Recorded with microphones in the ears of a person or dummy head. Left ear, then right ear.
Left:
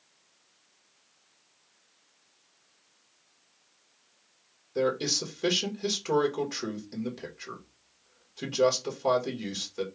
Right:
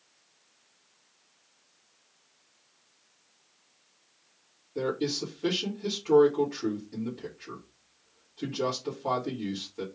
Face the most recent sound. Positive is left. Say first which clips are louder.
# left 3 dB
turn(degrees=45)  # may be behind; listen again after turning